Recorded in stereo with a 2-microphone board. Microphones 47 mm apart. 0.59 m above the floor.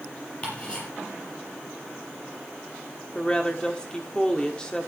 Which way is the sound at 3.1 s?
15° left (ahead or behind).